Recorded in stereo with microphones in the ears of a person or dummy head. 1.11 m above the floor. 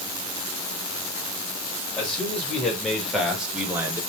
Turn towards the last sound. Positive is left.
turn(degrees=-15)  # may be behind; listen again after turning